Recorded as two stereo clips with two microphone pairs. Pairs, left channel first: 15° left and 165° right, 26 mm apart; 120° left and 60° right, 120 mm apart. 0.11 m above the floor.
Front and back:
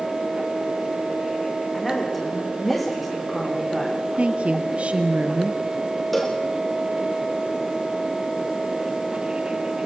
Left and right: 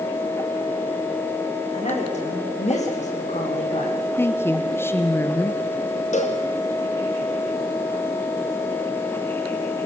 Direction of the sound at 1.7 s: 100° left.